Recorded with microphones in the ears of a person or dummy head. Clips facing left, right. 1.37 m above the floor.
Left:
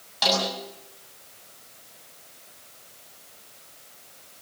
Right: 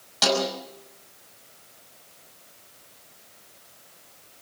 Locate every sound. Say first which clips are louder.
0.2 s a snare drum: right 2 dB; 50° right (ahead or behind), 6 m